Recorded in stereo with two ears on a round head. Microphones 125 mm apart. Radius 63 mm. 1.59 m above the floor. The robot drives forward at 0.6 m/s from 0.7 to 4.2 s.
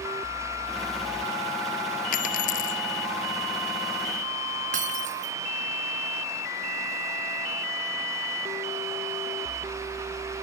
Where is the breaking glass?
60° right (ahead or behind).